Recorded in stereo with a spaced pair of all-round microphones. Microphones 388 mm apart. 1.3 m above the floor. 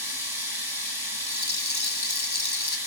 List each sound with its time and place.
0.0 s running water: 55° left (ahead or behind), 7 m
1.3 s a rattle: 75° left (ahead or behind), 1.3 m